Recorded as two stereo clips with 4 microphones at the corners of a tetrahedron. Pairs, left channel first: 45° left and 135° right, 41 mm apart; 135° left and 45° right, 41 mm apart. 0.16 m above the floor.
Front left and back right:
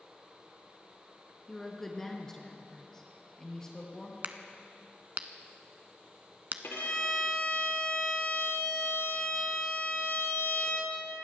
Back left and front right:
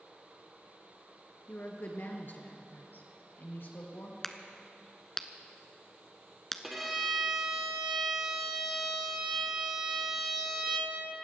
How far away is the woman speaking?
About 2 m.